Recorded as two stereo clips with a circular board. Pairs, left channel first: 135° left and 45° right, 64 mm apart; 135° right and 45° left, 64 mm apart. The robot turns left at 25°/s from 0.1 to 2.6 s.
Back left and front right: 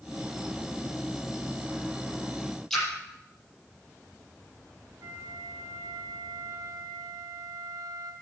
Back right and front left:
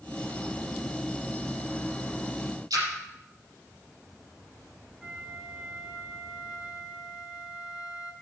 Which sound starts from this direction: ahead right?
A flute, at 5.0 s.